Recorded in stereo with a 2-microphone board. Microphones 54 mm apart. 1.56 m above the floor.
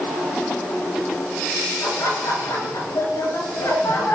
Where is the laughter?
90° left, 7 m; by 4.2 s 65° left (ahead or behind), 8 m.